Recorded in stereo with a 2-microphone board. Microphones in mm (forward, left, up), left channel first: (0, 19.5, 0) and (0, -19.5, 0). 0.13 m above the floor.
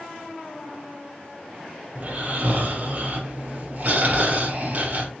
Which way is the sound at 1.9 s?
45° right (ahead or behind).